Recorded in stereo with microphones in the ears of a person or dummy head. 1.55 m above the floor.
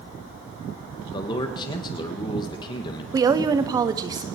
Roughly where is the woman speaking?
Right.